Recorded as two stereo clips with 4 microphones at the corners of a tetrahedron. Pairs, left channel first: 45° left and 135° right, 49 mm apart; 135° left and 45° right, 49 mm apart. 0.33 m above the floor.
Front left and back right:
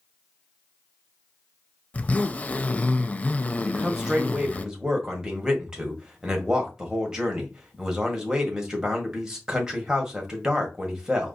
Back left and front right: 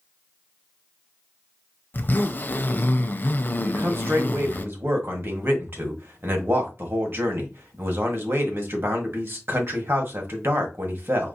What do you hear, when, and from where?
1.9 s a zipper: 100° left, 0.5 m
3.6 s a man speaking: 60° right, 1.6 m